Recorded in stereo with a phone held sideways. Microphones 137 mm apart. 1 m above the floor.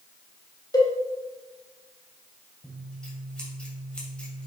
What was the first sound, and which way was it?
A cowbell, 30° left (ahead or behind).